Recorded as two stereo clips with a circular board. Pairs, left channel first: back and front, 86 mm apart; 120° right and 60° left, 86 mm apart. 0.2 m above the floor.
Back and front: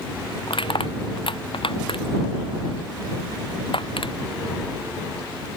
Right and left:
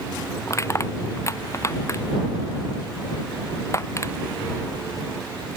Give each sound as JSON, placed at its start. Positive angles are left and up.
{"t": 0.5, "sound": "crushing", "azimuth_deg": -175}